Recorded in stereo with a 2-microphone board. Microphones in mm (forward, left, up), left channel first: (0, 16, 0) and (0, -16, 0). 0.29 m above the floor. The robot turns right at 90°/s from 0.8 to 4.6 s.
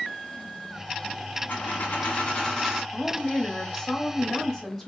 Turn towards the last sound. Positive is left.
turn(degrees=10)  # may be behind; listen again after turning